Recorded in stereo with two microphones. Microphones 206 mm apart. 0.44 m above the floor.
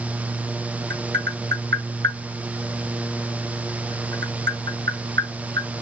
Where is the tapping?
65° right (ahead or behind), 2 m.